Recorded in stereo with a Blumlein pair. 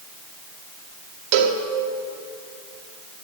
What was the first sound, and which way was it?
A cowbell, 45° right.